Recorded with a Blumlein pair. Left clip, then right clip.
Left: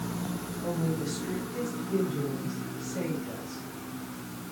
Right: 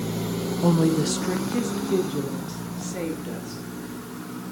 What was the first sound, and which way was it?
A woman speaking, 40° right.